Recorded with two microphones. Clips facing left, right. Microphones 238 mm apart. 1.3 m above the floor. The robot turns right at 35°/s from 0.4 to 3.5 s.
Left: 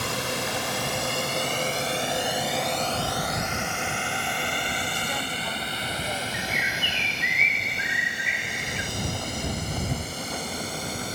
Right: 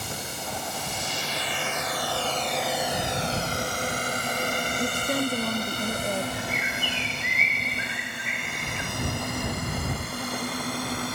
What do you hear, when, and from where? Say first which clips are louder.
0.0 s a drone: left 6 dB; 80° left; by 11.2 s 70° right (ahead or behind)
4.8 s a woman speaking: right 6 dB; 60° right (ahead or behind)
6.3 s a bird: right 1 dB; 40° right (ahead or behind)